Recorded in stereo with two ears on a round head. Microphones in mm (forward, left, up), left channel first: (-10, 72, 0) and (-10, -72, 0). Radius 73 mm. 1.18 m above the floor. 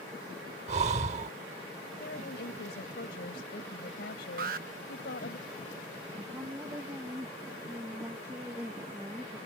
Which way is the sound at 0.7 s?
45° right (ahead or behind).